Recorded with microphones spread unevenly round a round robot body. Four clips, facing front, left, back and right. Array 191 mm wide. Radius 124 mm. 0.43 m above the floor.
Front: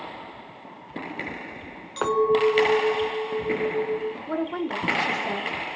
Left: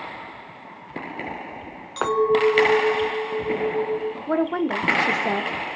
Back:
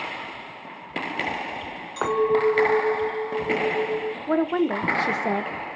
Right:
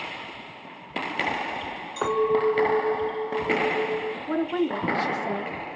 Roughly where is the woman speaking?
Behind left.